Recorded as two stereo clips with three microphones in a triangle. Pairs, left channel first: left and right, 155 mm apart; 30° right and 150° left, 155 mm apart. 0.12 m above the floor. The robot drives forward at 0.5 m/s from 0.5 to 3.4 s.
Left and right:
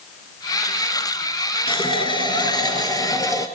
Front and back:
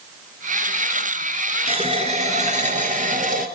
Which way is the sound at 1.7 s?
125° left.